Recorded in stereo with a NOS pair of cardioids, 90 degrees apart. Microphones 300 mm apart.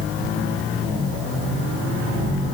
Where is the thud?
No thud in this recording.